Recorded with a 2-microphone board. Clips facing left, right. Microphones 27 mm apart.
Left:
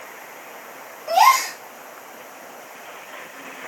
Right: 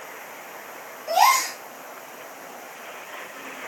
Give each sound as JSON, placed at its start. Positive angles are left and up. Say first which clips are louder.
{"t": 1.1, "sound": "a gasp", "louder": "left 3 dB", "side_deg": 15, "distance_m": 4.0}